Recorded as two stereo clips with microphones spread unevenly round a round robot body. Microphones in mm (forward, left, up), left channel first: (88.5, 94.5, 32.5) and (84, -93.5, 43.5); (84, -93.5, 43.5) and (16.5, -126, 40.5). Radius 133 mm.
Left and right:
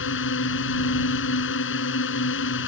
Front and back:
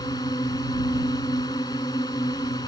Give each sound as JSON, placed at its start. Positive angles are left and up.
{"t": 0.0, "sound": "a drone", "azimuth_deg": 90}